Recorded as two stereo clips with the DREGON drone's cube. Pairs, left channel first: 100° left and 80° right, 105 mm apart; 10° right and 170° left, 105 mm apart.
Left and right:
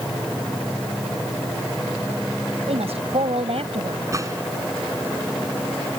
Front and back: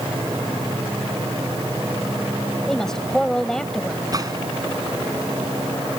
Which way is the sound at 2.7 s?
95° right.